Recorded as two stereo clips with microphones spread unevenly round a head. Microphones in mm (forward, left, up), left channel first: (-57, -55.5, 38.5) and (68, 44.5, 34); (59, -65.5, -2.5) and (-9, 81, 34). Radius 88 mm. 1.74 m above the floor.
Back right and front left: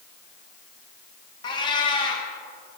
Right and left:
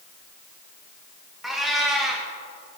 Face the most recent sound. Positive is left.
turn(degrees=180)